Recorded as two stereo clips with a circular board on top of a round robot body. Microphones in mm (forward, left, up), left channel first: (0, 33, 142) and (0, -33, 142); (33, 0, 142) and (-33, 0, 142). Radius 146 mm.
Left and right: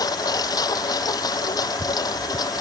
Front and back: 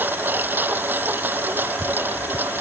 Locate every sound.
0.0 s a lawn mower: 120° left